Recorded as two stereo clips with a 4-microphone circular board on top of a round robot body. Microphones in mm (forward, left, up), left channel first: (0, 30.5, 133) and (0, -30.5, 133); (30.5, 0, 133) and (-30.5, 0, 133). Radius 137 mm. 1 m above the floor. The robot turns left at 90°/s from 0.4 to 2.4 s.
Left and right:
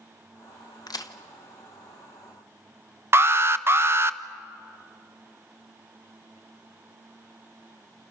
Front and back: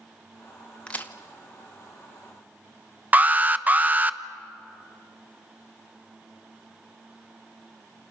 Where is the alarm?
125° right, 0.9 m.